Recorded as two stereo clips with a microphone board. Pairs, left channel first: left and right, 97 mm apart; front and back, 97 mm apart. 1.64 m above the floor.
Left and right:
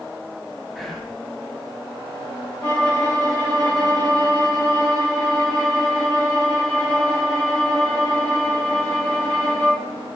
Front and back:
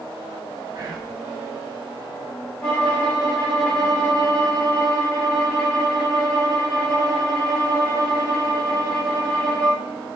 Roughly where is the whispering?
Behind.